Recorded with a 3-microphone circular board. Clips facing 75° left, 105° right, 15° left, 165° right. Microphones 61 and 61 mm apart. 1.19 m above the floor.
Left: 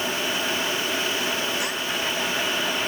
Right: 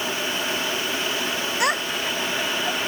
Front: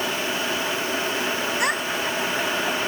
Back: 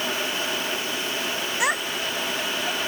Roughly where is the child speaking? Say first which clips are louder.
Right 4 dB, front 1 dB; right.